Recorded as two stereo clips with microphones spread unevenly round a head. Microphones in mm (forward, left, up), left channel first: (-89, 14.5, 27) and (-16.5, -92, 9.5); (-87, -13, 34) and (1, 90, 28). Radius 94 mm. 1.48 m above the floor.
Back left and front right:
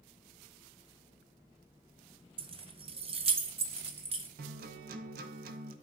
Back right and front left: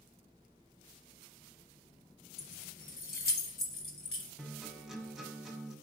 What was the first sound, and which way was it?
Keys jangling, 100° right.